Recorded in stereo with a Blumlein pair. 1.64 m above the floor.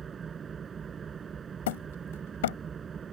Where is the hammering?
55° left.